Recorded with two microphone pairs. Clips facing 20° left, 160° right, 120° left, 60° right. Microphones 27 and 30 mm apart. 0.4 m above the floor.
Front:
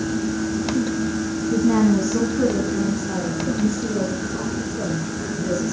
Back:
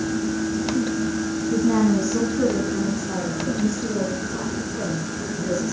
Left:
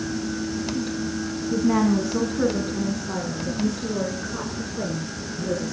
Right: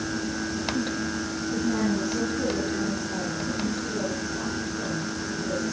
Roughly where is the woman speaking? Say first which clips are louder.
Front 2 dB, left 6 dB; left.